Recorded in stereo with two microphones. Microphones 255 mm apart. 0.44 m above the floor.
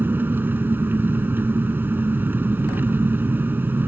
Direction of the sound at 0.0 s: 5° right (ahead or behind).